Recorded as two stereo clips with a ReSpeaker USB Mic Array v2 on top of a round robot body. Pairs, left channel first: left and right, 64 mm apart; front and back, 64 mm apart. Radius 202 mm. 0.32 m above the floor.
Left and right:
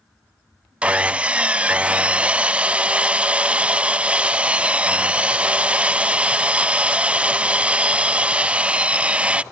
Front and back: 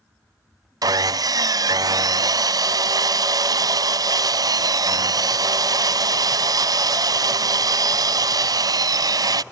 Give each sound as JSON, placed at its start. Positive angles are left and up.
{"t": 0.8, "sound": "sawing", "azimuth_deg": -160}